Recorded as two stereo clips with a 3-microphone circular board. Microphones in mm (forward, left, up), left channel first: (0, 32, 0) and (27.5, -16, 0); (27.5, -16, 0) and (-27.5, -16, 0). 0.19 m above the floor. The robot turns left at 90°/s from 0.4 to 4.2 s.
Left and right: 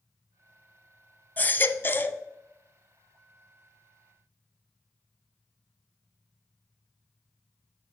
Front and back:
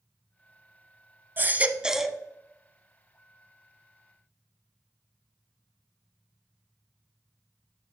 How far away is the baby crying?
About 0.6 m.